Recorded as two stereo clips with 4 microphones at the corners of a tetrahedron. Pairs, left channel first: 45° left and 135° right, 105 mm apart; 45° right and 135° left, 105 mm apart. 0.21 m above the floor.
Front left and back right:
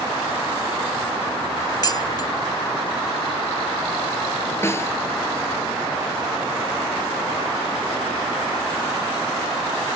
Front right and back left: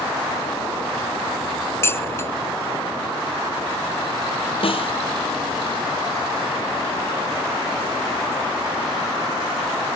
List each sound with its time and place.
1.8 s dishes clattering: 10° left
4.6 s a snare drum: 20° right